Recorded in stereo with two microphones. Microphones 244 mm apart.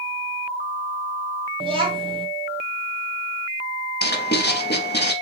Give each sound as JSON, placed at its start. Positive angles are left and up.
{"t": 1.6, "sound": "a child speaking", "side_deg": -20, "distance_m": 1.4}
{"t": 4.0, "sound": "writing", "side_deg": 40, "distance_m": 0.7}